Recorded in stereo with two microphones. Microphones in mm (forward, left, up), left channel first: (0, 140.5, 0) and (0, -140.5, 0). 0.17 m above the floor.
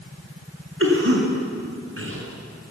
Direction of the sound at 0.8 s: 50° right (ahead or behind).